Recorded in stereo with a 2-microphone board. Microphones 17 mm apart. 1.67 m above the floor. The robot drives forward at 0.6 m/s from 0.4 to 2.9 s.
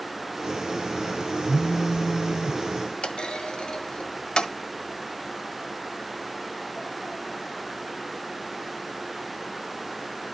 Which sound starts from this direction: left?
A clunk, at 3.0 s.